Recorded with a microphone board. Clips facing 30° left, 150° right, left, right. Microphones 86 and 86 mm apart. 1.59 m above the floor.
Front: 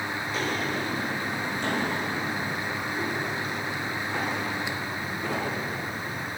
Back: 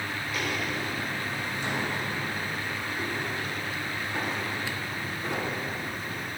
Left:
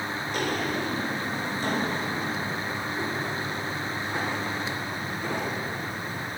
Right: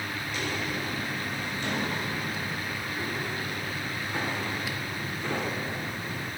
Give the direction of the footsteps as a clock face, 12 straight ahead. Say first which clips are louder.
Front 2 dB, left 6 dB; 9 o'clock.